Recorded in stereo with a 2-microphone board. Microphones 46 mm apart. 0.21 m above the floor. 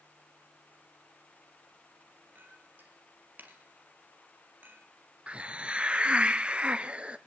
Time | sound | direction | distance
2.4 | a clink | 45° right (ahead or behind) | 3 m
5.3 | a hiss | 25° right (ahead or behind) | 0.9 m